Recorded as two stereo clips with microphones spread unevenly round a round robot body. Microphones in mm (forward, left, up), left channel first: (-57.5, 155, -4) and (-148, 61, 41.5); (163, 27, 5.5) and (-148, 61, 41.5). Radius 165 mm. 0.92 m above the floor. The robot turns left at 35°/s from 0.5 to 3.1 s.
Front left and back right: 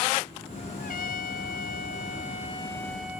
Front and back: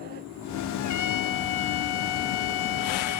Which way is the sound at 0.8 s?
35° left.